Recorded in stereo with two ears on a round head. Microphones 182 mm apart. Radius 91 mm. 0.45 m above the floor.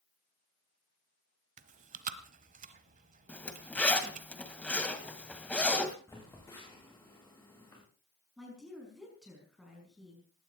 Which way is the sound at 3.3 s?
5° left (ahead or behind).